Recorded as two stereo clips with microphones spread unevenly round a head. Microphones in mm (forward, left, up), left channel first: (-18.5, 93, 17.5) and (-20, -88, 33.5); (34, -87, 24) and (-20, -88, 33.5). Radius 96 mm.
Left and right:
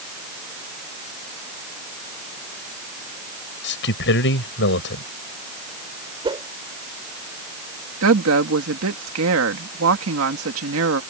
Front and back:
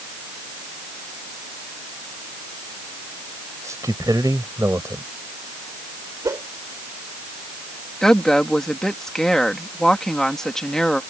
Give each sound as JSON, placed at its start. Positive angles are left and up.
{"t": 3.6, "sound": "a man speaking", "azimuth_deg": 115}
{"t": 6.2, "sound": "a whoosh", "azimuth_deg": -155}
{"t": 8.0, "sound": "a woman speaking", "azimuth_deg": -80}